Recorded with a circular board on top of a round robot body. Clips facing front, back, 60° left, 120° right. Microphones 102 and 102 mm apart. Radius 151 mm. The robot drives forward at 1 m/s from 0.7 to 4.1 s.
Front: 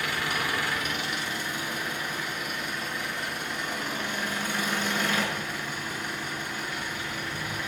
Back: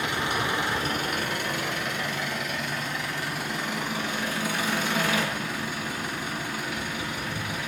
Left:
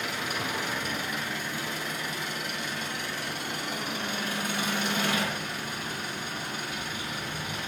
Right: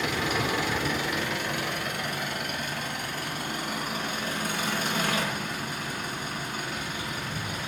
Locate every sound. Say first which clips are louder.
0.0 s an engine running: back 3 dB, right 5 dB; 110° right, 0.9 m; by 7.7 s 170° right, 4 m